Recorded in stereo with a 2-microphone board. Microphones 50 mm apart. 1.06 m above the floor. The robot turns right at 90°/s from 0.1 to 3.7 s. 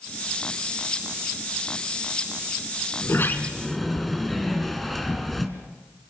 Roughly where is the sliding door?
Behind left.